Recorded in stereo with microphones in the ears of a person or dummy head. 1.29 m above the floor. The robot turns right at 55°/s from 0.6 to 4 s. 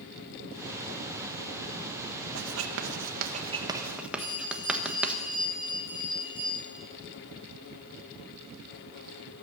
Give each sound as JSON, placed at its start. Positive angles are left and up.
{"t": 2.4, "sound": "writing", "side_deg": -80, "distance_m": 1.4}
{"t": 4.2, "sound": "a bell", "side_deg": 25, "distance_m": 3.5}